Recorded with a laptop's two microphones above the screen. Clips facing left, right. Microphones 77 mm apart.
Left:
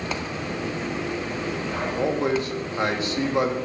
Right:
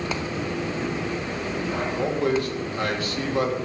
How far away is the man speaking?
About 2 m.